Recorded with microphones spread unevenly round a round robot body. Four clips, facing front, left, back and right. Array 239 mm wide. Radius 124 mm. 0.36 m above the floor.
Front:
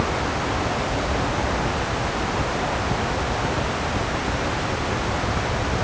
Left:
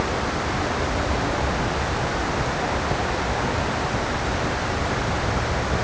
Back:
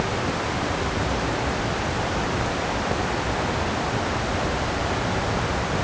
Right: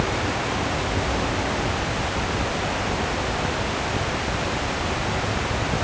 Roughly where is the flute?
I don't hear a flute.